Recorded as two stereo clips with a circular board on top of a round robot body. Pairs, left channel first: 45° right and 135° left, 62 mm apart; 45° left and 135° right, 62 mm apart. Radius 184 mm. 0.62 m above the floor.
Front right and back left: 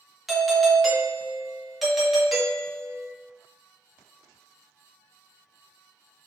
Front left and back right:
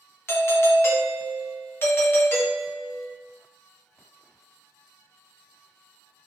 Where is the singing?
No singing in this recording.